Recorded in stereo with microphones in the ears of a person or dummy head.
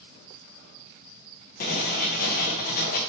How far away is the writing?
About 0.8 m.